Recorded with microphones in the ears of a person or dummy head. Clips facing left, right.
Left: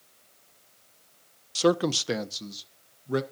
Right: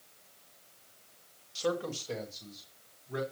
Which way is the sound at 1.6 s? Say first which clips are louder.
Left 10 dB; 70° left (ahead or behind).